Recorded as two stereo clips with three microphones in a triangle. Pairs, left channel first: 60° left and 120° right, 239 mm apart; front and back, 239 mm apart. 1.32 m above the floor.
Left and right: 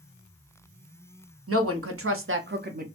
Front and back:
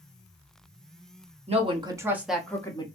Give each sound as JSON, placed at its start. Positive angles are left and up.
{"t": 1.5, "sound": "a woman speaking", "azimuth_deg": -120, "distance_m": 0.9}